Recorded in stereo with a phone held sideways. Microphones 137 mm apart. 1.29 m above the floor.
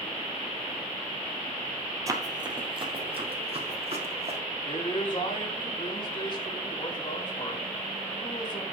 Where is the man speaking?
35° left (ahead or behind), 4 m.